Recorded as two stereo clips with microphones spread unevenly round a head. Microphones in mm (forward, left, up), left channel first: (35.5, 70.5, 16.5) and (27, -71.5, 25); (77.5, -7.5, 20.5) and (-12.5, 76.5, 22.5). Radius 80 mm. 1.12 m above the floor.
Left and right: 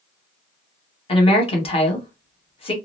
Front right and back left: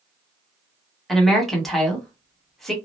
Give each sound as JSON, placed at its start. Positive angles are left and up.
{"t": 1.1, "sound": "a woman speaking", "azimuth_deg": 45, "distance_m": 1.2}